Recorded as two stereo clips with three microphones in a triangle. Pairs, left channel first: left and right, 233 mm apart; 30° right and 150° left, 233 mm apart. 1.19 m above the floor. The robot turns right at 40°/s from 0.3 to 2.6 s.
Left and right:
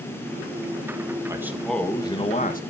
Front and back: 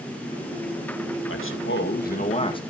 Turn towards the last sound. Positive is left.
turn(degrees=40)